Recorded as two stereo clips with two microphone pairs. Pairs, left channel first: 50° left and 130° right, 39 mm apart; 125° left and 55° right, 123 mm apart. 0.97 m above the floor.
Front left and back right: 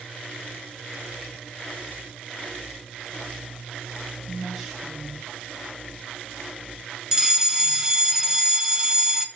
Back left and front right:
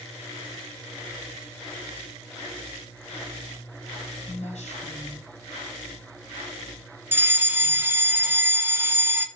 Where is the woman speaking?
150° left, 5.5 m.